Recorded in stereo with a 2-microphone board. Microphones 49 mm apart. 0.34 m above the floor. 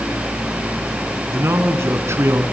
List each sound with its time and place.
1.3 s a man speaking: 65° right (ahead or behind), 3 m